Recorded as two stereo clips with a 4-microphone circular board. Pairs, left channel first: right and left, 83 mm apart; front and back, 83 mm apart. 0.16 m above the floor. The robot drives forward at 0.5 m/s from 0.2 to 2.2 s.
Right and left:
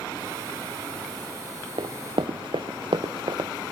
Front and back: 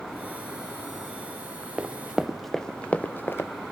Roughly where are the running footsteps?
Left.